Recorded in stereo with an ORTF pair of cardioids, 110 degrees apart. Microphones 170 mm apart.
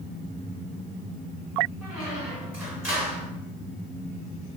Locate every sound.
1.8 s a squeak: 10° right, 2.0 m